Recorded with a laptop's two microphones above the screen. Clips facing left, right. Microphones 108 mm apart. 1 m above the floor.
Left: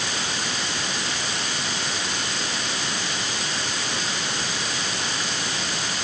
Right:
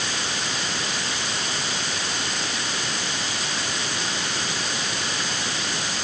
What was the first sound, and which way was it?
Only background noise.